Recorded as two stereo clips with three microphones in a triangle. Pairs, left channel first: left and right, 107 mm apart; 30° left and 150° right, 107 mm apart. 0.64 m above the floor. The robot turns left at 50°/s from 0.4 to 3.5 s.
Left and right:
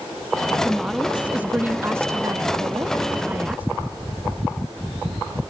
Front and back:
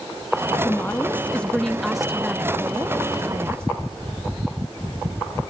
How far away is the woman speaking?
About 0.5 m.